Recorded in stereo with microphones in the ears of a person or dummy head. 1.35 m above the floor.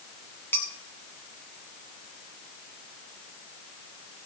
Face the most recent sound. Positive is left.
turn(degrees=10)  # may be behind; listen again after turning